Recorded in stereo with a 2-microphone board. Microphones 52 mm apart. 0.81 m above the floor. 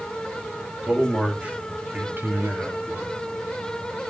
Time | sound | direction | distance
0.8 | a man speaking | 20° right (ahead or behind) | 3 m